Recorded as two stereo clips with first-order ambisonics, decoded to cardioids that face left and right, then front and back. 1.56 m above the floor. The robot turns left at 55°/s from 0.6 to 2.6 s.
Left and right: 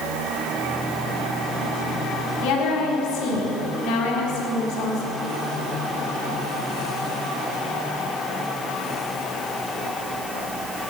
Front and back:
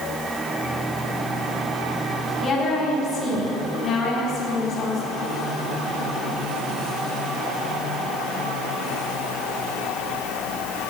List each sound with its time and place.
2.4 s a woman speaking: 70° left, 3.5 m; by 5.2 s 60° left, 3.5 m